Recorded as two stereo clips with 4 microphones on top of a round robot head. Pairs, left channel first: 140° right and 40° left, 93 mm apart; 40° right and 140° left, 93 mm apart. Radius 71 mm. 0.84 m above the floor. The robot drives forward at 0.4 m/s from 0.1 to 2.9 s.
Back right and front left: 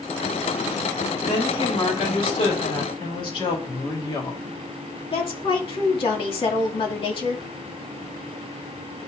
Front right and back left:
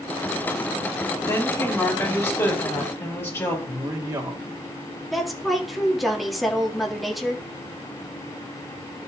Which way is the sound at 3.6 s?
175° right.